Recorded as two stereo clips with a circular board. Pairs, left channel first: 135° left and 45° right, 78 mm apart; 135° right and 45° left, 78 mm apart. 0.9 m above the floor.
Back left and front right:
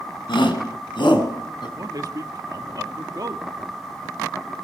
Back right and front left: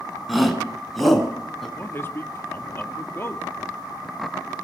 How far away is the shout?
About 7.5 m.